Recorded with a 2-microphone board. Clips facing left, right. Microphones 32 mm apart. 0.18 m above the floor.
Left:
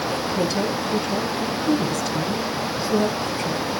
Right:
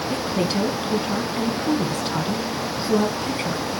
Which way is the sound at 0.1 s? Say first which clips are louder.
Right 2 dB; 30° right (ahead or behind).